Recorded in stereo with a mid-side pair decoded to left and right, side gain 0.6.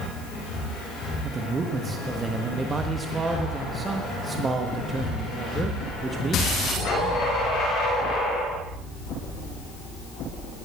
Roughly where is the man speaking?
Ahead right.